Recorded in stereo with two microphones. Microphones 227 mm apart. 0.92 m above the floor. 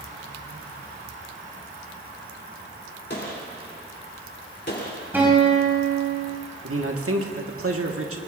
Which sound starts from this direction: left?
A gunshot, at 3.1 s.